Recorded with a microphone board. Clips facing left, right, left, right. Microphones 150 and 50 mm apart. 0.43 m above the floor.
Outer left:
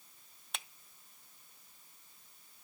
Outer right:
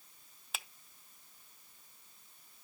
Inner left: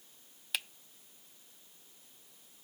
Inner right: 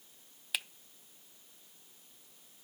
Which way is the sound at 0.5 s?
5° right (ahead or behind).